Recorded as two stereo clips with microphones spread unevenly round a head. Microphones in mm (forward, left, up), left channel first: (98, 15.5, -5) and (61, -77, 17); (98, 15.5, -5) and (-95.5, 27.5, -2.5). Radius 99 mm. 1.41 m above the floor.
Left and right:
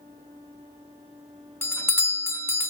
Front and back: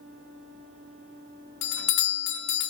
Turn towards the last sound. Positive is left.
turn(degrees=10)